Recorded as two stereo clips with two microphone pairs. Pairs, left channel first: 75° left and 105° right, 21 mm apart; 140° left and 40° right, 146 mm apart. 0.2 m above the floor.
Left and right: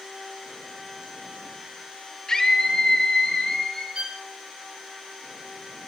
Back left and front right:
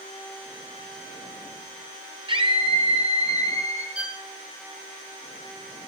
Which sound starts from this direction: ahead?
A scream, at 2.3 s.